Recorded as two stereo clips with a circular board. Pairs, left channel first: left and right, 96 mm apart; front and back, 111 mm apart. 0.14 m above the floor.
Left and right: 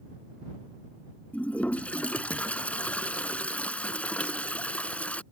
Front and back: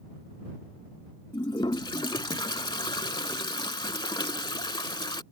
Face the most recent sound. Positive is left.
turn(degrees=20)